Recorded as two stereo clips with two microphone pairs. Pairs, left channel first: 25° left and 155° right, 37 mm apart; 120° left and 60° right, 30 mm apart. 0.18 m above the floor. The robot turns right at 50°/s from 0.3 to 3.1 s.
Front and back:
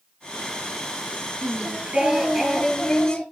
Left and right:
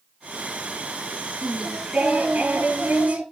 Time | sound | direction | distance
1.4 | singing | 125° right | 2.5 m